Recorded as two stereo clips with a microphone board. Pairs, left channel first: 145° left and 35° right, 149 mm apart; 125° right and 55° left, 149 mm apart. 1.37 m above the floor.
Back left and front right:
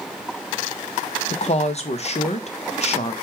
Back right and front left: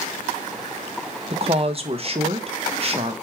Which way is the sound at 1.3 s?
105° left.